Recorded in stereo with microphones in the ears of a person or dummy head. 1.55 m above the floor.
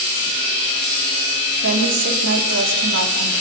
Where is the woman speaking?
70° right (ahead or behind), 4 m.